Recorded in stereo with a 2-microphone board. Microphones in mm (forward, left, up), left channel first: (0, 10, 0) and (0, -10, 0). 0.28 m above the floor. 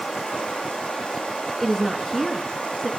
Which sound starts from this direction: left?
Running water, at 0.0 s.